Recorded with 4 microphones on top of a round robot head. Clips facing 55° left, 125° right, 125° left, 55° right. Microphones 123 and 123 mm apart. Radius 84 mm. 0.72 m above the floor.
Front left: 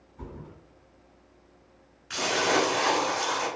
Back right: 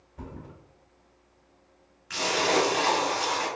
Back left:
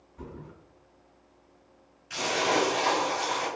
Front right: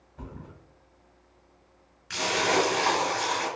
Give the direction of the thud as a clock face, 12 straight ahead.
4 o'clock.